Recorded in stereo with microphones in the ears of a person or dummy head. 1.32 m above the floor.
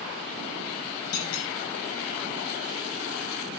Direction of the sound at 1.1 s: 75° left (ahead or behind).